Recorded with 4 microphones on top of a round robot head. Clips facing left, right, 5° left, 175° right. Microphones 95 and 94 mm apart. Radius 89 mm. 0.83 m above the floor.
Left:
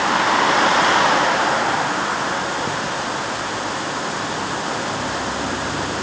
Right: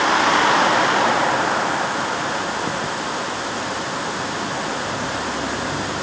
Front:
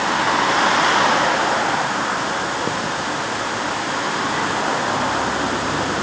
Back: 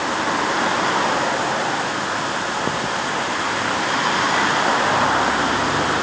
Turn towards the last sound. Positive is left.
No sound to turn to.